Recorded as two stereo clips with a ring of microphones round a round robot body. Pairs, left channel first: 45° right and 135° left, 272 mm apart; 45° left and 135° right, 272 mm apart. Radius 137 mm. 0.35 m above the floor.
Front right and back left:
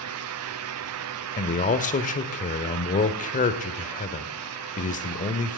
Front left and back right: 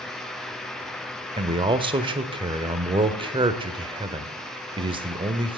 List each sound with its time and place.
1.4 s a man speaking: 80° right, 1.1 m